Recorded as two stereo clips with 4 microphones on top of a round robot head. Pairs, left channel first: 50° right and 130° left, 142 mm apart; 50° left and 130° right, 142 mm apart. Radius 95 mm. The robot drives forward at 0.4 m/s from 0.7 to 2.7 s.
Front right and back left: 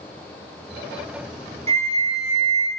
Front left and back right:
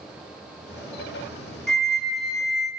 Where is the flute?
140° left, 1.6 m; by 2.7 s 150° left, 1.9 m.